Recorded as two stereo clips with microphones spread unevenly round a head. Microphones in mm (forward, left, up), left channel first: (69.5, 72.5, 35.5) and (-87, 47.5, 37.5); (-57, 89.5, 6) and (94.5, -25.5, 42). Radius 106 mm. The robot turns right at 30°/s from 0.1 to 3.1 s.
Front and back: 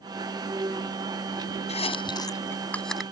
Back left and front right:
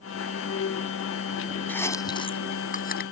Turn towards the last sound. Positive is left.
turn(degrees=100)